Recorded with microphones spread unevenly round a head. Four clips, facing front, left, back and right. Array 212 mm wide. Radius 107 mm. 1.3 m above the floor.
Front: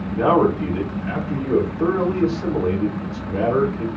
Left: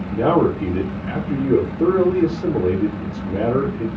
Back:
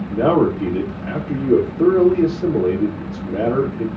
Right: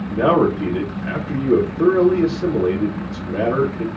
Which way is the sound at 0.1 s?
140° right.